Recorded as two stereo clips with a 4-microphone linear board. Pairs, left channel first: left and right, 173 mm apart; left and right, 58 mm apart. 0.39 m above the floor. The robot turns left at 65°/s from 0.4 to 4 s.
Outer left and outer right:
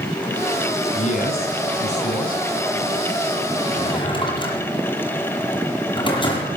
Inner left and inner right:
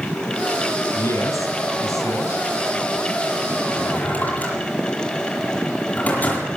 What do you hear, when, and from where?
0.9 s a man speaking: 140° left, 4 m; by 2.4 s 45° left, 4 m
3.7 s a drawer: 45° left (ahead or behind), 7.5 m; by 6.5 s 25° left (ahead or behind), 7.5 m